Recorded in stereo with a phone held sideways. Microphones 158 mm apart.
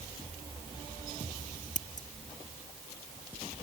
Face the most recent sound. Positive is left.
turn(degrees=55)  # may be behind; listen again after turning